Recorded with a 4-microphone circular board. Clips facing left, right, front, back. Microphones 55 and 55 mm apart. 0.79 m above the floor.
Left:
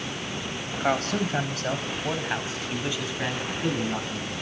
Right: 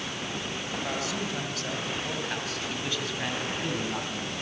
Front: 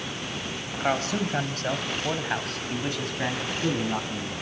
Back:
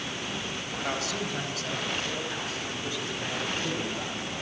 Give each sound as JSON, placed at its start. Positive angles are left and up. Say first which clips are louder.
{"t": 0.8, "sound": "a man speaking", "louder": "left 9 dB, front 6 dB", "azimuth_deg": 55, "distance_m": 4.5}